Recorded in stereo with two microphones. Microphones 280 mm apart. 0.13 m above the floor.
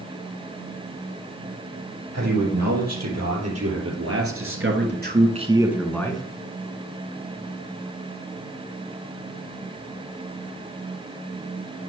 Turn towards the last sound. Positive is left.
turn(degrees=20)  # may be behind; listen again after turning